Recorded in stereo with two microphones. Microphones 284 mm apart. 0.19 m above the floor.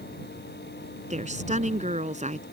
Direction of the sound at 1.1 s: 25° right (ahead or behind).